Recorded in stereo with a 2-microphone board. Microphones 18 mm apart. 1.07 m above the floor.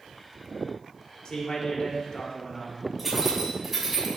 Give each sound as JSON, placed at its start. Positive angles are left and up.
{"t": 1.2, "sound": "a man speaking", "side_deg": 50, "distance_m": 4.0}
{"t": 3.0, "sound": "keys jangling", "side_deg": -15, "distance_m": 5.0}